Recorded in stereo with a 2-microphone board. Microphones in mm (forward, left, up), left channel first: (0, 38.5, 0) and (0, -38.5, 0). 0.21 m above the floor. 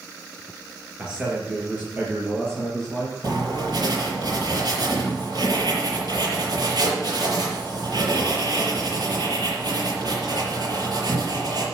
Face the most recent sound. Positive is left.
turn(degrees=-65)  # may be behind; listen again after turning